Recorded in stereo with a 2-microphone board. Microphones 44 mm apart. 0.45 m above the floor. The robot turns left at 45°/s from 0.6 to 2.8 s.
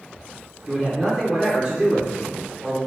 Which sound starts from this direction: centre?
A man speaking, at 0.7 s.